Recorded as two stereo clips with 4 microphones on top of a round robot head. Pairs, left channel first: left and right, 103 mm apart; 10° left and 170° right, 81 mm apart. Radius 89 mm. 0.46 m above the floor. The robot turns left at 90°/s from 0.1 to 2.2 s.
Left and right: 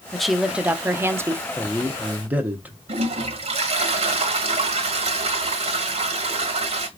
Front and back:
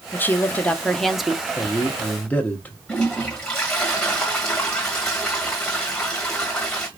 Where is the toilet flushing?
70° right, 1.5 m.